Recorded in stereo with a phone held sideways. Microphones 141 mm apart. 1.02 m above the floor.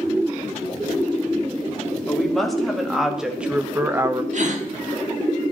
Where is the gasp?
60° right (ahead or behind), 1.6 m.